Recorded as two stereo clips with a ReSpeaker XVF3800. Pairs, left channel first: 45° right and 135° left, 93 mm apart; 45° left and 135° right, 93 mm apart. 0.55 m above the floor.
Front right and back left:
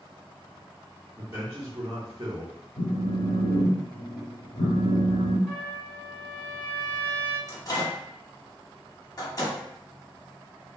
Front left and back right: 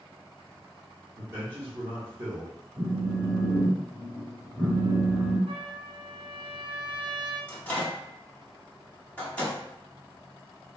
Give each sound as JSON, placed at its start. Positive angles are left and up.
{"t": 1.2, "sound": "a man speaking", "azimuth_deg": -170, "distance_m": 1.0}
{"t": 2.8, "sound": "a phone buzzing", "azimuth_deg": -65, "distance_m": 0.9}
{"t": 5.5, "sound": "a trumpet", "azimuth_deg": -140, "distance_m": 1.6}
{"t": 7.5, "sound": "a microwave", "azimuth_deg": -25, "distance_m": 0.9}